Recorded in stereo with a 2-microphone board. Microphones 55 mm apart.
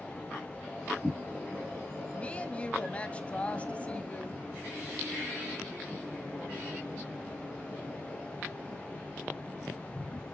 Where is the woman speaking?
25° left (ahead or behind), 1.2 m.